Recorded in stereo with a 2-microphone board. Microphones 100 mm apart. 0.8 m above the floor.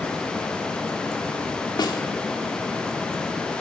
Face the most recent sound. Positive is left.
turn(degrees=45)  # may be behind; listen again after turning